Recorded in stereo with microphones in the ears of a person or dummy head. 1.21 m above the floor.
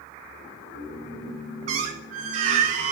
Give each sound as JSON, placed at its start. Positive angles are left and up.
{"t": 1.7, "sound": "a squeak", "side_deg": -50, "distance_m": 0.9}